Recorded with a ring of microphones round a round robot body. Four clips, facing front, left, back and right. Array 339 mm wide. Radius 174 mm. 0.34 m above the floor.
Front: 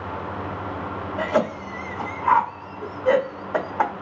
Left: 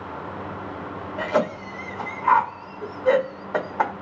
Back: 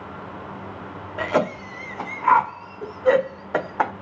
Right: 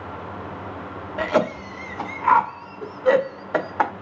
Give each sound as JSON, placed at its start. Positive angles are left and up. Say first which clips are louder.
{"t": 1.2, "sound": "a cough", "louder": "right 2 dB, even", "azimuth_deg": -125, "distance_m": 0.9}